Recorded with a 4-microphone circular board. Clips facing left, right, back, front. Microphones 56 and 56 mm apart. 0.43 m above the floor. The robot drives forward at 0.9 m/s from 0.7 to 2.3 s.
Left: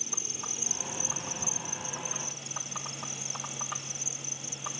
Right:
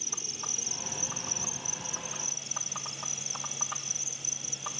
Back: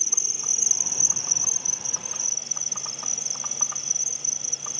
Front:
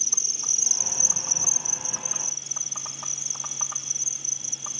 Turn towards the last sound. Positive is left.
turn(degrees=180)